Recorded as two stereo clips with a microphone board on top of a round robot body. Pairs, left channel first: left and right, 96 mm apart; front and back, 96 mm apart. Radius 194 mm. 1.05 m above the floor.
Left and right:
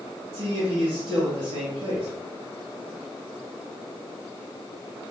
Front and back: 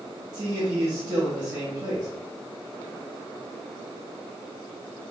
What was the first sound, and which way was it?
A man speaking, 105° right.